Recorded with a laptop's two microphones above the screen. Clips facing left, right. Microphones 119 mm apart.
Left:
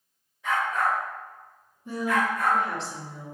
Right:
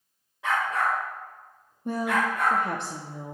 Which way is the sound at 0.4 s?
85° right.